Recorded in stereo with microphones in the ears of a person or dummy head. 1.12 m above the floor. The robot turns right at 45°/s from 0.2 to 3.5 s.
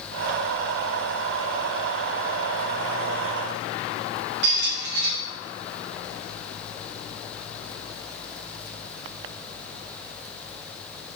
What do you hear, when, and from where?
4.4 s a squeak: 50° right (ahead or behind), 0.6 m